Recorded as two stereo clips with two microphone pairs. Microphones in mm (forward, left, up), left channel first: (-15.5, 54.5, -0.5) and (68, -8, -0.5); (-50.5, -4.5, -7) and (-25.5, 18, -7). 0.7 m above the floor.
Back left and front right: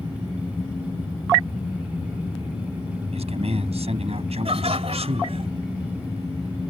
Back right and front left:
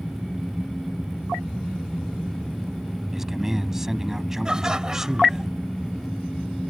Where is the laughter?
25° right.